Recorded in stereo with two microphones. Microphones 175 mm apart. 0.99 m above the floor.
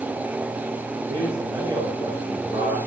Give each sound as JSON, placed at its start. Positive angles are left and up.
{"t": 1.1, "sound": "a man speaking", "side_deg": -30, "distance_m": 4.5}